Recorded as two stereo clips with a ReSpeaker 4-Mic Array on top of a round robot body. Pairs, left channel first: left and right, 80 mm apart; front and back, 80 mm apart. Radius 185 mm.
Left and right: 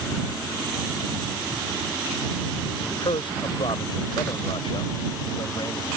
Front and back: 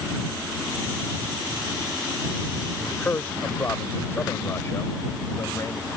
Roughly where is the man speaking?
Left.